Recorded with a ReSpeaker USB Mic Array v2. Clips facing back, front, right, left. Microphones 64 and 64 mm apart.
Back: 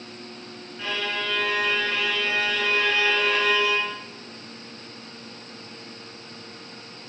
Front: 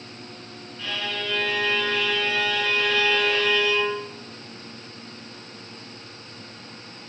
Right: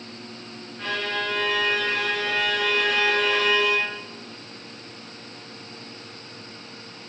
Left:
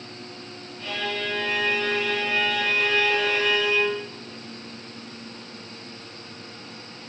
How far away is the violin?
About 4.5 m.